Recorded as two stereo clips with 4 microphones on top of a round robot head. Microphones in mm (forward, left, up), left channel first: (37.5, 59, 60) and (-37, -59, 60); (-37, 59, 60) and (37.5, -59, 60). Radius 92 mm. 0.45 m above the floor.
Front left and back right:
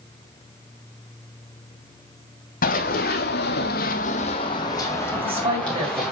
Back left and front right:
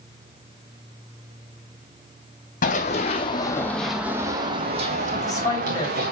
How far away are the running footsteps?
About 1.1 m.